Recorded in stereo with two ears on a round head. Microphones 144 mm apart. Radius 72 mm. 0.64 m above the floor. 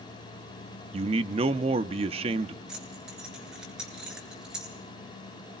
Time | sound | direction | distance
0.9 | a man speaking | 35° right (ahead or behind) | 0.7 m
2.7 | keys jangling | 5° right (ahead or behind) | 8 m